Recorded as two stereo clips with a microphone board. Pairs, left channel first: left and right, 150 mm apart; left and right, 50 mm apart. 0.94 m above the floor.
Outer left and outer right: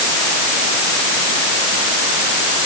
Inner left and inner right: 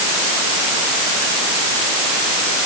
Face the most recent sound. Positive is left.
No sound to turn to.